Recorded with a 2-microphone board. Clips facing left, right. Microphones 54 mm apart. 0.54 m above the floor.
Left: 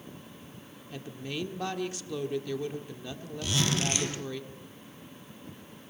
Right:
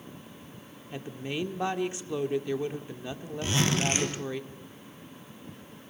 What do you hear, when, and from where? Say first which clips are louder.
0.9 s a woman speaking: right 3 dB; 20° right (ahead or behind), 1.5 m
3.4 s a zipper: right 2 dB; 35° right (ahead or behind), 3.5 m